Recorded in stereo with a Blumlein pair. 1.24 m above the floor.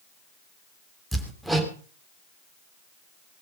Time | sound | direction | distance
1.1 | hammering | straight ahead | 3 m